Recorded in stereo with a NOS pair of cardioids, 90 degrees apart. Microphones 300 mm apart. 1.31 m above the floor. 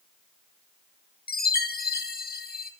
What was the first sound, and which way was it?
A chime, 30° left.